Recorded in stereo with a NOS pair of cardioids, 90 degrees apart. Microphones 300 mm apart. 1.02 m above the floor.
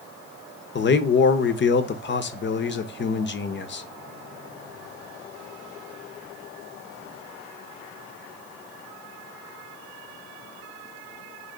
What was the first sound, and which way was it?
A man speaking, 40° left.